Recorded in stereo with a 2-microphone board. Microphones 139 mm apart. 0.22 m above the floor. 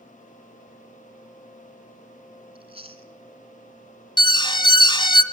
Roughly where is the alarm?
Left.